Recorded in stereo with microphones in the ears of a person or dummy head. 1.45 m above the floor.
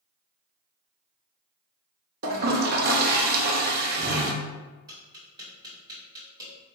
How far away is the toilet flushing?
About 0.6 m.